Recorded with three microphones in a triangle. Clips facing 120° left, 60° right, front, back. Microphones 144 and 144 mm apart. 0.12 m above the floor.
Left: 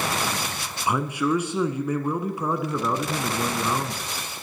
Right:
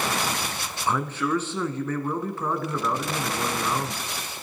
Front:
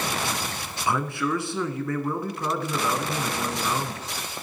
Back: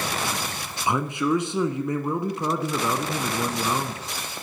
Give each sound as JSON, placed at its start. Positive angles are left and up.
{"t": 0.9, "sound": "a man speaking", "azimuth_deg": 170, "distance_m": 1.0}